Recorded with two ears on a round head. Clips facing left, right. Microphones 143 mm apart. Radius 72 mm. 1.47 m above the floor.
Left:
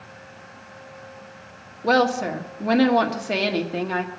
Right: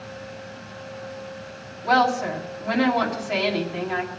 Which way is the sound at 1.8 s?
45° left (ahead or behind).